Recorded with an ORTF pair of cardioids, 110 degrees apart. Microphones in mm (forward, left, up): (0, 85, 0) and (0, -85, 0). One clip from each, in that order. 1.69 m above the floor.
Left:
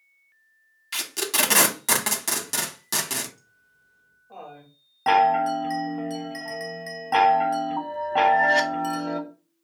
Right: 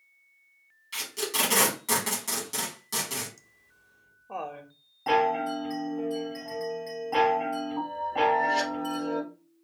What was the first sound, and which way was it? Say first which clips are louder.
Tape being pulled: left 4 dB; 50° left.